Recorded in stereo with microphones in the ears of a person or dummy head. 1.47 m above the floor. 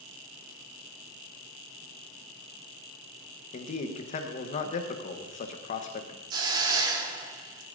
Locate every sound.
3.5 s a man speaking: 45° left (ahead or behind), 0.9 m
6.3 s a hiss: 25° right (ahead or behind), 1.4 m